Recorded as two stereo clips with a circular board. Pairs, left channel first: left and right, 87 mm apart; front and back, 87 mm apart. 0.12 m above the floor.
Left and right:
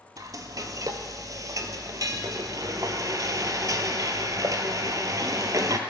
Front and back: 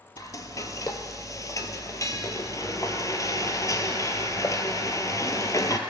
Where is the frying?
45° right, 0.6 m.